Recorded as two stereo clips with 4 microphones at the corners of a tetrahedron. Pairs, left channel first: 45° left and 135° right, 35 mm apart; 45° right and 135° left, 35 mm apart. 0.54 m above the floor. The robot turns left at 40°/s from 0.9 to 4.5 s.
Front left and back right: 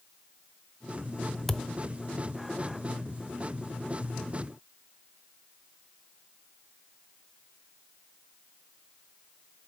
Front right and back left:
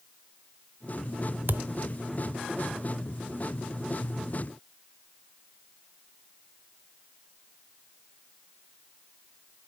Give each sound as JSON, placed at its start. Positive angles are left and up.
{"t": 1.5, "sound": "a thud", "azimuth_deg": 130, "distance_m": 0.5}